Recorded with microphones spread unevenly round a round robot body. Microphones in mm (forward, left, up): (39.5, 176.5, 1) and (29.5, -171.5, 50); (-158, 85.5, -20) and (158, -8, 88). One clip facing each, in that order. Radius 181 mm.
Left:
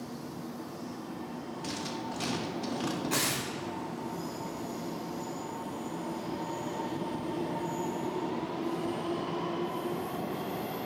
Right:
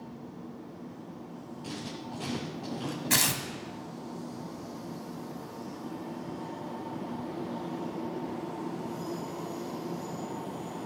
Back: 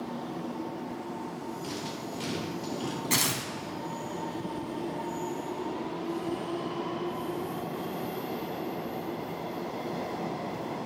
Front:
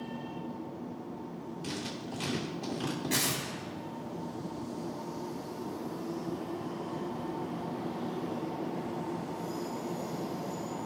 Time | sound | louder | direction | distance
1.6 | writing | left 1 dB, back 2 dB | 50° left | 2.5 m
3.1 | tearing paper | even, back 1 dB | 120° right | 1.1 m